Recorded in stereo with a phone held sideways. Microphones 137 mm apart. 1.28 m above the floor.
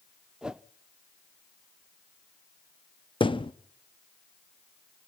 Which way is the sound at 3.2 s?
40° left (ahead or behind).